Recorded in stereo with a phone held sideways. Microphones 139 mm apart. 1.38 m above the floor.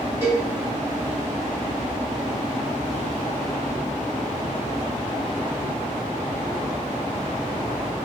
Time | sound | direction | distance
0.2 | a cowbell | 25° right (ahead or behind) | 1.6 m